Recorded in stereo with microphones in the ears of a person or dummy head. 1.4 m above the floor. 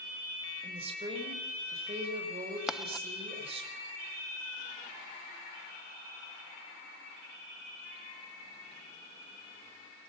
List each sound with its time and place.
0.6 s a woman speaking: 25° right (ahead or behind), 5 m
2.7 s writing: 5° left (ahead or behind), 0.5 m